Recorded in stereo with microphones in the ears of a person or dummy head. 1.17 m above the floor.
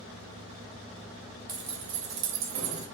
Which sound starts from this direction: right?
Keys jangling, at 1.5 s.